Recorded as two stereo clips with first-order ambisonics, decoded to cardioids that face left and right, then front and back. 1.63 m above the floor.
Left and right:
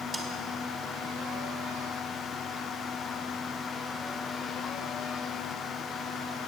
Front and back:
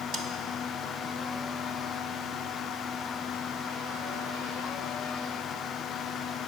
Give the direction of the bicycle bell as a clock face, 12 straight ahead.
No bicycle bell in this recording.